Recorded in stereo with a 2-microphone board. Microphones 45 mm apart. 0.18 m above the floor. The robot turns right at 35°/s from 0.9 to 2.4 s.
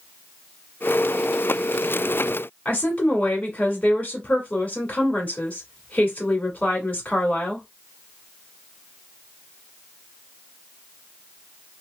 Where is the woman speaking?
30° left (ahead or behind), 1.4 m.